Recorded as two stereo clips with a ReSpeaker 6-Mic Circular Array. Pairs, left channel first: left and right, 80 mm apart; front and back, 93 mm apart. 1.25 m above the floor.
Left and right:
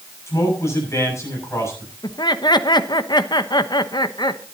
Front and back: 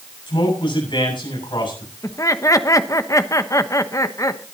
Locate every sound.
0.3 s a man speaking: 35° left, 7 m
2.0 s laughter: 55° left, 1.1 m